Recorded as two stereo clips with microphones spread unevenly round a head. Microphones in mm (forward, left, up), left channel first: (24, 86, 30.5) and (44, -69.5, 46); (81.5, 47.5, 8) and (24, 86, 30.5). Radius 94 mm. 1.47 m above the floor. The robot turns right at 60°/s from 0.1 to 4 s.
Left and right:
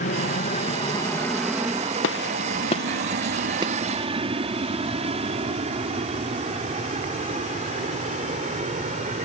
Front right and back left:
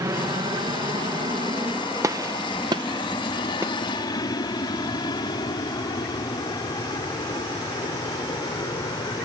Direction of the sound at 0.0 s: 115° left.